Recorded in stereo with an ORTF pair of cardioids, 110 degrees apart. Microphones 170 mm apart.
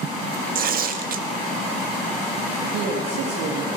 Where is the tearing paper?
55° right, 1.7 m.